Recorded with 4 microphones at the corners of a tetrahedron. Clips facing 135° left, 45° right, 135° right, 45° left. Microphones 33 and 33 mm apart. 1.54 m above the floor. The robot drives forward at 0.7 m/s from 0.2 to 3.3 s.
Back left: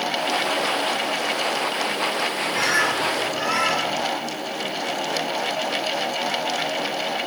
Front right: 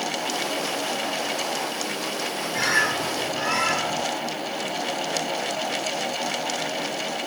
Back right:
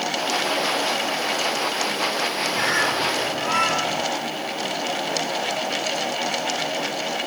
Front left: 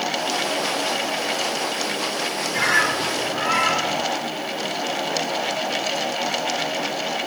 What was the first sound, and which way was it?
A bird, 55° left.